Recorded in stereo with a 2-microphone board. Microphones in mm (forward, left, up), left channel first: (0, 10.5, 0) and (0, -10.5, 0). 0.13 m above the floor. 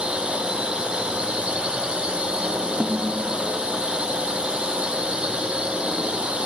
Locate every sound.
0.0 s a drone: 50° right (ahead or behind)
2.8 s a snare drum: 55° right (ahead or behind)